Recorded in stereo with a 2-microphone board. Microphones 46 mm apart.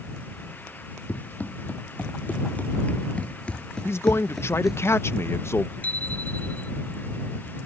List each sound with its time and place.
1.1 s running footsteps: 35° left (ahead or behind); by 4.8 s 5° right (ahead or behind)
3.9 s a man speaking: 60° left (ahead or behind)
5.8 s a bicycle bell: 35° left (ahead or behind)